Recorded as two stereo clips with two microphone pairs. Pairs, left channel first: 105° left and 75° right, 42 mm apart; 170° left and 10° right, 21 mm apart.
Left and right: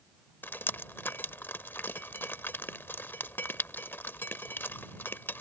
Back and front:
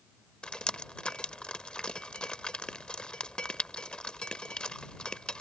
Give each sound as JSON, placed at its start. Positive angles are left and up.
{"t": 0.4, "sound": "dripping", "azimuth_deg": 140}